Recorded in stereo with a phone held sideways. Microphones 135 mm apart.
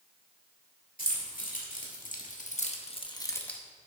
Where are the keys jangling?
85° left, 2 m; by 3.6 s 5° left (ahead or behind), 0.9 m.